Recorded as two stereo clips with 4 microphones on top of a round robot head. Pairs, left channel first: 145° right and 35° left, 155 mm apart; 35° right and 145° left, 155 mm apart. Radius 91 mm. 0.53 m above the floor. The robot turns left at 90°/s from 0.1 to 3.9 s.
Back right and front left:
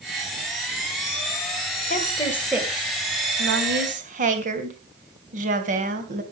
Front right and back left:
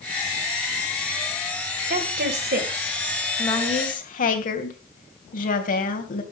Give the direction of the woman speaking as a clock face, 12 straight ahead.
6 o'clock.